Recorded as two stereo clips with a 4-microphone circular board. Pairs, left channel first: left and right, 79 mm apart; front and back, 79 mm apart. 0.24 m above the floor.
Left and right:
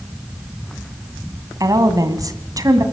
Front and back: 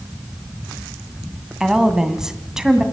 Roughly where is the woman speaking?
Right.